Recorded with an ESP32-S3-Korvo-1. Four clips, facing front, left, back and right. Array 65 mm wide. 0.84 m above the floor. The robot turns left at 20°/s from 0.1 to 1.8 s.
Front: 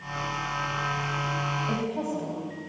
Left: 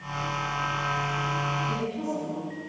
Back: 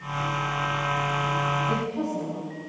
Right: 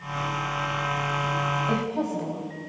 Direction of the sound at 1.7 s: 70° right.